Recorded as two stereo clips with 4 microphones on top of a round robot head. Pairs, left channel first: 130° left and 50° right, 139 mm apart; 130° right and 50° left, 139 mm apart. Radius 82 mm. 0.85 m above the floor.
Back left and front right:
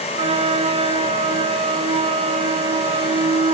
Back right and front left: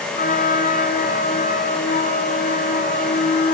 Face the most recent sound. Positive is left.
turn(degrees=-100)